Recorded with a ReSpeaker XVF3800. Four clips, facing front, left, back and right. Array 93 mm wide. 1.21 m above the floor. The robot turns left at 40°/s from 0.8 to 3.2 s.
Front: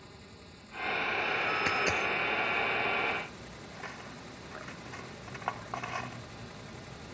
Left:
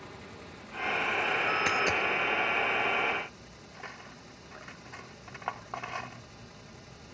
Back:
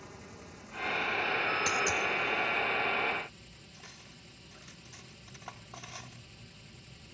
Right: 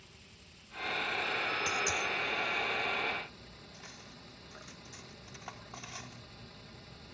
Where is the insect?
105° left; by 7.2 s 10° left.